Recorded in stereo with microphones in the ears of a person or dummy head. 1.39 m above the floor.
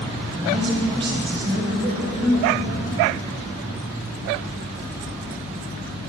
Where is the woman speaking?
30° right (ahead or behind), 4.5 m.